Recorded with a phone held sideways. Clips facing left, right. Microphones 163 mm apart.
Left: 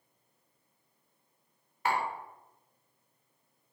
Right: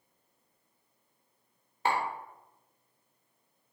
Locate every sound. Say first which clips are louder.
1.9 s tapping: right 1 dB; 30° right (ahead or behind), 1.4 m